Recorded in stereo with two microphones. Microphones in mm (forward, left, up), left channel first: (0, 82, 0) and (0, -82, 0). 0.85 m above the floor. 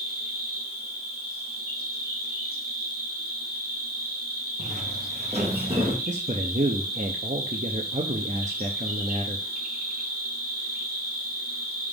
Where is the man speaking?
50° right (ahead or behind), 0.7 m.